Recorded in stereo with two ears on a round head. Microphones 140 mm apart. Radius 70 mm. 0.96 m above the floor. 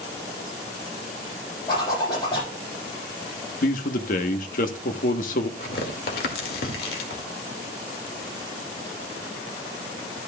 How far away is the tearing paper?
About 2 m.